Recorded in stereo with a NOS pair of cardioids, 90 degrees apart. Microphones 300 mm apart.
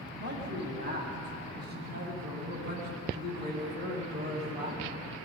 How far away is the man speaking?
About 8.5 m.